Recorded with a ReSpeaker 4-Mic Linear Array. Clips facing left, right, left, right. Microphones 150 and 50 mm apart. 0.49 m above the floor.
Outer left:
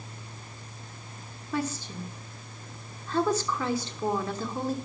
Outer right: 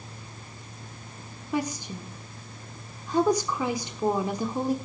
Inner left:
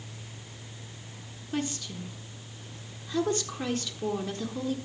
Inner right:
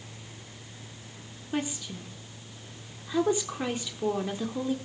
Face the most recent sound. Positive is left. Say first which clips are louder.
# outer right 2 dB, inner right 1 dB
turn(degrees=-15)  # may be behind; listen again after turning